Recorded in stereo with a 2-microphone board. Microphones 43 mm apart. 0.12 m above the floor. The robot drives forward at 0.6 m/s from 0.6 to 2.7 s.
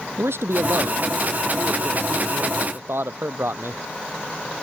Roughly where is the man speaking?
Right.